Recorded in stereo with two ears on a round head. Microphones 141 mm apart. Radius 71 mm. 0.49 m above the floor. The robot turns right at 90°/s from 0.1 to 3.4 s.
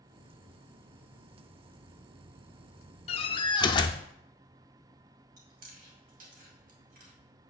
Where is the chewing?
60° right (ahead or behind), 2 m.